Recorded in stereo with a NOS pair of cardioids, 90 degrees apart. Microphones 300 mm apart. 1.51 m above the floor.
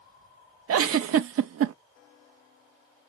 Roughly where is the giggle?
Ahead right.